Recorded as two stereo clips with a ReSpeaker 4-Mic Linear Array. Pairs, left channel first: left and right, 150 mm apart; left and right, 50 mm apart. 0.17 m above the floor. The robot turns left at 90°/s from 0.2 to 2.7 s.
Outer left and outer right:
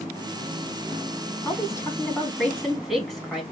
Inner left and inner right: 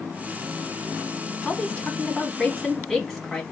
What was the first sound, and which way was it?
A woman speaking, 20° left (ahead or behind).